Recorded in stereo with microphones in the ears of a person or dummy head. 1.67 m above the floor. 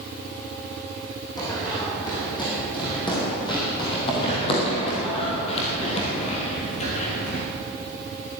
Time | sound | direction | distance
1.4 | running footsteps | 20° left (ahead or behind) | 5 m